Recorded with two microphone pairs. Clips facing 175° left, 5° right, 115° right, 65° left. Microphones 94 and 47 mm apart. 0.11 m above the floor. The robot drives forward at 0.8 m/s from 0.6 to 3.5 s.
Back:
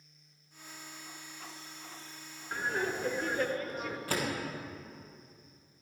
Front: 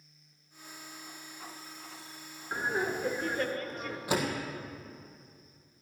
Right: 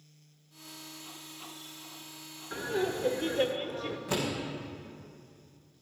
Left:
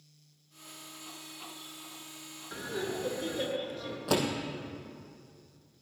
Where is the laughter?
50° right, 1.3 m; by 4.0 s 130° right, 1.3 m.